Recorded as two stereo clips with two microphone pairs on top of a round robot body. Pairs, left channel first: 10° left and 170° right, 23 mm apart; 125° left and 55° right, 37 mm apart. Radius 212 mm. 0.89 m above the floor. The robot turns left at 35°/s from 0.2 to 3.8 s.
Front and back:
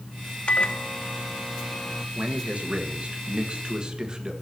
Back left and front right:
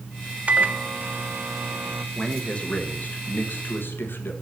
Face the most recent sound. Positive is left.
turn(degrees=140)